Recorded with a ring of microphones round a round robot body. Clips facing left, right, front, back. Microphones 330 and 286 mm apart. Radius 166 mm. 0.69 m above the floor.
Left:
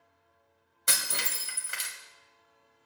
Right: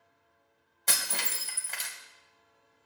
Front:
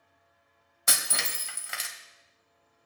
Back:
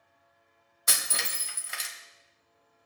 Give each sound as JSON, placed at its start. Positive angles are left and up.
{"t": 0.9, "sound": "breaking glass", "azimuth_deg": 15, "distance_m": 1.6}